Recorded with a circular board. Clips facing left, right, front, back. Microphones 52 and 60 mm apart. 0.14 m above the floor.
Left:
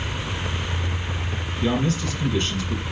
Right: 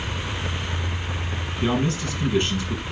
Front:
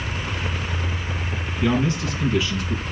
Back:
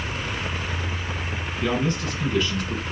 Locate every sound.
1.6 s a man speaking: 80° right, 1.5 m